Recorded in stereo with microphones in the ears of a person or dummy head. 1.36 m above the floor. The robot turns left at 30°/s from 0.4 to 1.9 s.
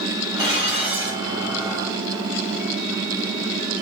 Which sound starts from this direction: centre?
Dishes clattering, at 0.4 s.